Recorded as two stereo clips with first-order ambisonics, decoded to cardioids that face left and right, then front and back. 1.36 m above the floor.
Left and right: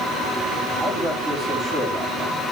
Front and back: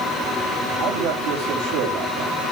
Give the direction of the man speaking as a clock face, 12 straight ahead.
6 o'clock.